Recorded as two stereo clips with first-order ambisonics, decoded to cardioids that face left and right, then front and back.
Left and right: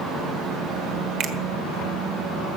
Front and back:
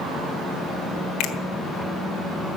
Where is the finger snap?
40° right, 1.4 m.